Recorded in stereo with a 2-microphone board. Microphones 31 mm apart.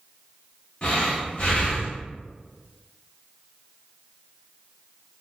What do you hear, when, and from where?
0.8 s breathing: 35° left (ahead or behind), 0.9 m